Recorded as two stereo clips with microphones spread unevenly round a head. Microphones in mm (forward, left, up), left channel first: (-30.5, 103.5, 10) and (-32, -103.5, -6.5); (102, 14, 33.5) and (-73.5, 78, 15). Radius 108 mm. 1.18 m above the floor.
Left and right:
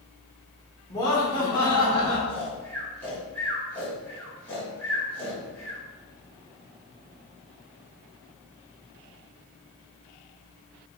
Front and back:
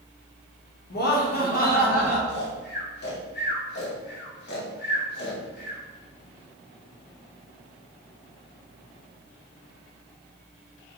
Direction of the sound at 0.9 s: 10° left.